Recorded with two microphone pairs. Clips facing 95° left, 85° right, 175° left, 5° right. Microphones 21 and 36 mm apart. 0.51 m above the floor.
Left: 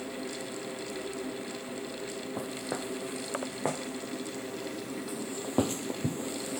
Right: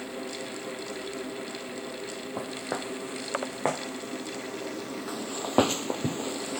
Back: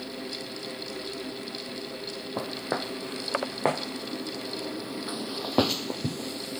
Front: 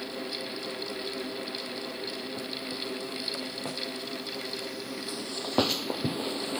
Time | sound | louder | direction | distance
2.4 | footsteps | right 3 dB, back 4 dB | 155° right | ?